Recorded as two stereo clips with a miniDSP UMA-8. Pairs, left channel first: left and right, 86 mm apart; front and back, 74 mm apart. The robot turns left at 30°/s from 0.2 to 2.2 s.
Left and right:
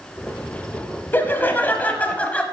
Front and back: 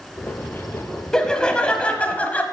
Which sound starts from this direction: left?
Laughter, at 1.1 s.